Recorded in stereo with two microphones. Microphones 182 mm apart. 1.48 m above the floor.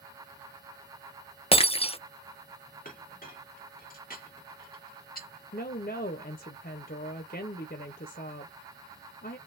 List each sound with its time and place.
1.5 s breaking glass: 30° left (ahead or behind), 0.7 m
2.9 s a clink: 55° left (ahead or behind), 2 m
5.5 s a woman speaking: 60° left (ahead or behind), 0.8 m